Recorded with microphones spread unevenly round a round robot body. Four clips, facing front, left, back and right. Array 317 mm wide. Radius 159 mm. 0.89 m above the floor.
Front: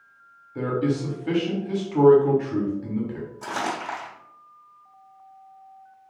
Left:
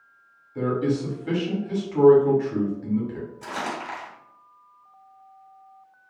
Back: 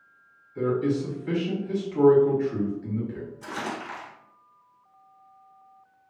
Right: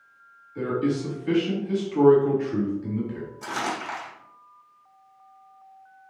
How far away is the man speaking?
About 2.0 m.